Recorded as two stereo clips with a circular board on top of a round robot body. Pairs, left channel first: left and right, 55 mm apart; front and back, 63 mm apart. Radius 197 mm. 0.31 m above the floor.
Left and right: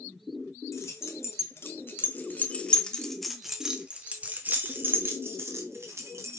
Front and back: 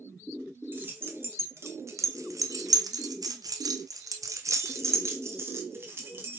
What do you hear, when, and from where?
0.7 s keys jangling: 125° left, 2.5 m; by 6.4 s 120° right, 3 m